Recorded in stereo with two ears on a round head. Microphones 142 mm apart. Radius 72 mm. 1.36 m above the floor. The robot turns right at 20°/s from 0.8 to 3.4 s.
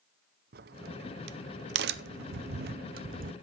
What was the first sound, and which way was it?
A crack, 65° right (ahead or behind).